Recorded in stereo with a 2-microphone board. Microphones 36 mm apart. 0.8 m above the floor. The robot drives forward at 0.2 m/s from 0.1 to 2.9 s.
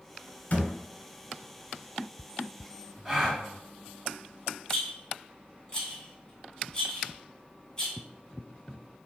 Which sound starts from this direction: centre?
A gasp, at 3.0 s.